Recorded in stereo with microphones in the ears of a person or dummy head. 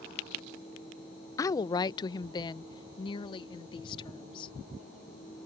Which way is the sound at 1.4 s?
20° left (ahead or behind).